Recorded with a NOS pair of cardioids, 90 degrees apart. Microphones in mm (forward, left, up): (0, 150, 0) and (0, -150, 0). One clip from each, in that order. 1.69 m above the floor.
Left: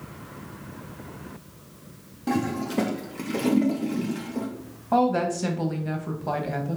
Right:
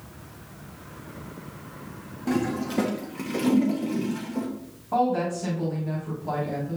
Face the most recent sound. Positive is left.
turn(degrees=45)